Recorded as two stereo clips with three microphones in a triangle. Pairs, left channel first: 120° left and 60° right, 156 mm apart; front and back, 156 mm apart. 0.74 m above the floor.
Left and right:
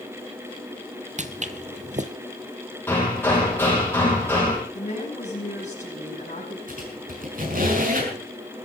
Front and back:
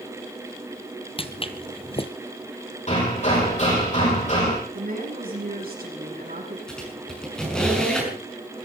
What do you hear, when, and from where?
1.2 s footsteps: 45° right, 1.1 m
2.9 s hammering: 45° left, 7.5 m
4.7 s a woman speaking: 160° left, 6.5 m
6.7 s a squeak: 85° right, 6.5 m